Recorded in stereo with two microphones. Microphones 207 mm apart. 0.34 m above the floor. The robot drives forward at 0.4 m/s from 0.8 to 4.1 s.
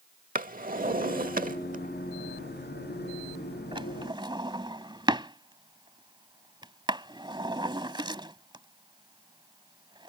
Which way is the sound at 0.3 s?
40° right (ahead or behind).